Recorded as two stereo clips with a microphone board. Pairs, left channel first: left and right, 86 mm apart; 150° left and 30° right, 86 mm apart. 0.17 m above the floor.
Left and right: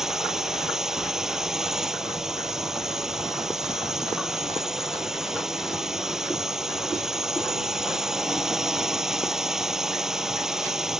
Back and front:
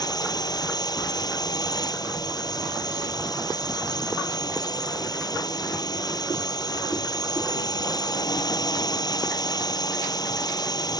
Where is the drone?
175° right.